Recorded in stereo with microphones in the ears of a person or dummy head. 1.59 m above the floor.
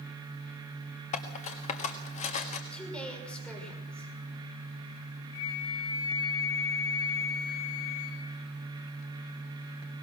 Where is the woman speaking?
10° left (ahead or behind), 6 m.